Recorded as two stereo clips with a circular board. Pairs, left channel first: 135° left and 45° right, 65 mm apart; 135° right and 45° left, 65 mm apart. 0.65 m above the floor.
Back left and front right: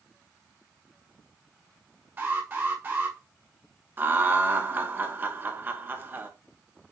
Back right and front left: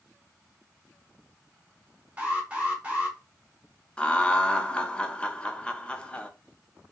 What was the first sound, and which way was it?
An alarm, 10° right.